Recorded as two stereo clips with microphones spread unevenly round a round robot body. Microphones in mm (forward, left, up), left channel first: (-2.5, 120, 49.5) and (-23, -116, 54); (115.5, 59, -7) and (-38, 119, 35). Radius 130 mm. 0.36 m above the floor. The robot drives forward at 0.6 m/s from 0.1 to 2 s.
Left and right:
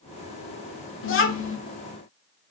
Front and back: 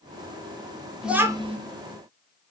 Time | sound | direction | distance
1.0 | a child speaking | 60° left | 0.6 m